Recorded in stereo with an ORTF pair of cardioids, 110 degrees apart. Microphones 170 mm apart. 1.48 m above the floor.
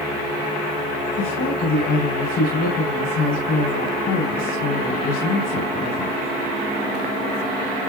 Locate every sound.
1.2 s a woman speaking: 65° left, 6 m